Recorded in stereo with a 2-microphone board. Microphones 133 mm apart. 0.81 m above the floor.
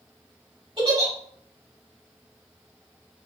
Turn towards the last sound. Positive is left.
turn(degrees=-45)  # may be behind; listen again after turning